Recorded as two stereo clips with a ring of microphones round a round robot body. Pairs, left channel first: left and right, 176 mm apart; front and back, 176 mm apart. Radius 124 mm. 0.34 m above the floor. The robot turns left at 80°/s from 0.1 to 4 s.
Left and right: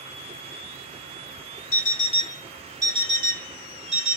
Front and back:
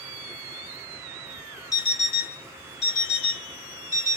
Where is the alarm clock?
70° left, 1.1 m; by 4.2 s 115° right, 1.1 m.